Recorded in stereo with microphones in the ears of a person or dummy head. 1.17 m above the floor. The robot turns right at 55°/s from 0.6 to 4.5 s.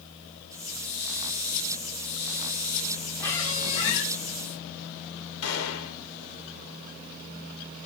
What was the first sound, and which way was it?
A squeak, 10° left.